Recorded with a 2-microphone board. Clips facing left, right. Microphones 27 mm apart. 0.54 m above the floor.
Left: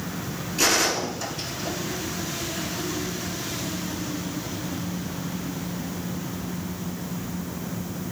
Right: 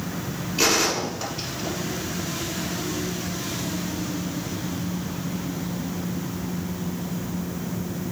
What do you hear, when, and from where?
0.6 s a gunshot: 20° right (ahead or behind), 6 m